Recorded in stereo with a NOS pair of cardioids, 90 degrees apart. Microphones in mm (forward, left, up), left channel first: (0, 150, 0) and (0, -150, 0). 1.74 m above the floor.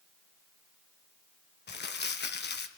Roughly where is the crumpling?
Ahead left.